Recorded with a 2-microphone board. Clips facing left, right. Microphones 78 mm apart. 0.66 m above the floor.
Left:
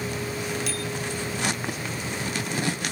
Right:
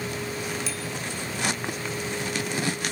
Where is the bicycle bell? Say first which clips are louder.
Left 2 dB; 60° left (ahead or behind), 5 m.